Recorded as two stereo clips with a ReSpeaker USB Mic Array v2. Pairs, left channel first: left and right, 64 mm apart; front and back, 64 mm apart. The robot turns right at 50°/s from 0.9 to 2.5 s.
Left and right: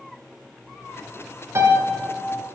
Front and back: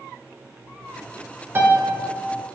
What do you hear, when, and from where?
1.6 s a piano: 130° right, 1.3 m; by 1.9 s 115° right, 1.3 m